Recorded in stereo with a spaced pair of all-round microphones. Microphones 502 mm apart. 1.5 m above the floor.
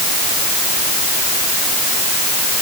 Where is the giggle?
I don't hear a giggle.